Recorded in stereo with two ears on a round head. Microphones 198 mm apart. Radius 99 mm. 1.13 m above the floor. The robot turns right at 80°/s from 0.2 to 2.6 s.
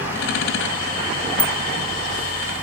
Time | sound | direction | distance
1.4 | a bicycle bell | 5° left (ahead or behind) | 3 m